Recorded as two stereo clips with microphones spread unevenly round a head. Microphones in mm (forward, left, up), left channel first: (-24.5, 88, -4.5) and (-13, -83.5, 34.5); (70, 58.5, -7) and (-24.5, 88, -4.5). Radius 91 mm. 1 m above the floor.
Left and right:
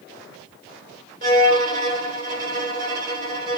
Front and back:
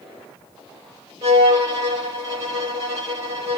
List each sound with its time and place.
1.2 s a violin: 125° right, 4.5 m